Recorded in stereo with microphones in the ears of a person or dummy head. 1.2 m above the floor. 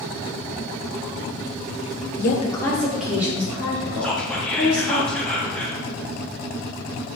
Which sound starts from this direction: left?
A woman speaking, at 2.2 s.